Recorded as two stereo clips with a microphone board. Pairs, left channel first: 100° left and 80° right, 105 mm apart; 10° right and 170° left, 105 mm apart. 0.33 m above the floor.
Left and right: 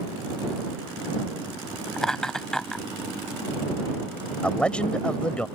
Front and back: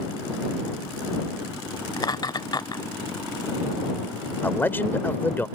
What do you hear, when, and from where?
2.0 s laughter: 20° left
4.4 s a man speaking: 35° left